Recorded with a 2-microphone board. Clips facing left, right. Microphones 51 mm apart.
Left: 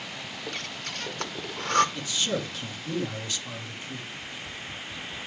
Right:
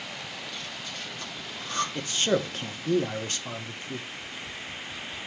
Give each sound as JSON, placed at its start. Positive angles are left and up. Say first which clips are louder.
{"t": 0.5, "sound": "breathing", "louder": "left 2 dB", "side_deg": 60, "distance_m": 0.9}
{"t": 1.9, "sound": "a man speaking", "louder": "right 4 dB", "side_deg": -45, "distance_m": 1.1}
{"t": 4.1, "sound": "tapping", "louder": "even", "side_deg": 15, "distance_m": 2.5}